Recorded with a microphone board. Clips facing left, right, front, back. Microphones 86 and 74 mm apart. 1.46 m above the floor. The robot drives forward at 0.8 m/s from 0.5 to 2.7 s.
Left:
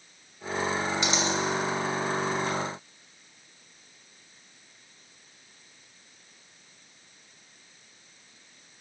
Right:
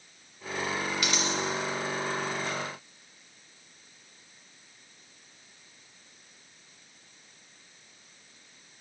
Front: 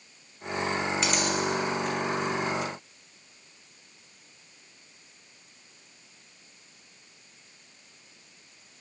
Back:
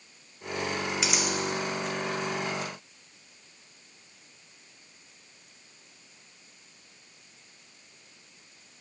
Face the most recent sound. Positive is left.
turn(degrees=160)